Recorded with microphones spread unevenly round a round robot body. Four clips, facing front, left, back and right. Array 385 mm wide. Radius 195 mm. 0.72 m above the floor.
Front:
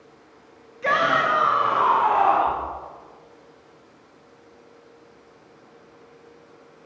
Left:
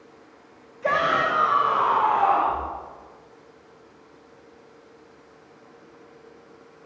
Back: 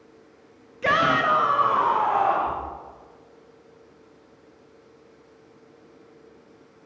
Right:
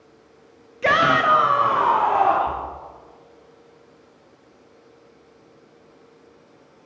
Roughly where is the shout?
Behind right.